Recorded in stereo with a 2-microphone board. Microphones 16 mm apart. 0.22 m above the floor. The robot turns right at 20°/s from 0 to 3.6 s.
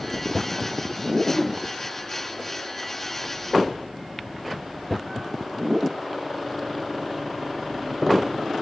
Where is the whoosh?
60° left (ahead or behind), 4 m; by 1.6 s 65° left (ahead or behind), 4 m.